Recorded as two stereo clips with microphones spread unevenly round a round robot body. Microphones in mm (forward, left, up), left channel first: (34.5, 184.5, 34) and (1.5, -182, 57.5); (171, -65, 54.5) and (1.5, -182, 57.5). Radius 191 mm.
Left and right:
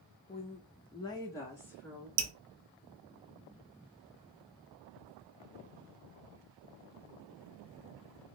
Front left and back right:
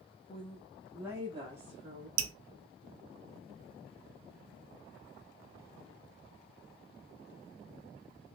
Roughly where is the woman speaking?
Ahead left.